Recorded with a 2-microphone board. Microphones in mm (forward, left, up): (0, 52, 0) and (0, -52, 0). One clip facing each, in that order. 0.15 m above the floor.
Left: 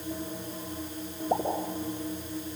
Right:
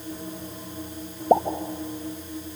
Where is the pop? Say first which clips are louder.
Right 10 dB; 45° right (ahead or behind), 4 m.